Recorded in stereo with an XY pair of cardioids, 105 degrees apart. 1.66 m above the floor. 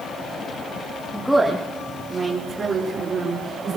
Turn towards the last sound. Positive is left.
turn(degrees=-50)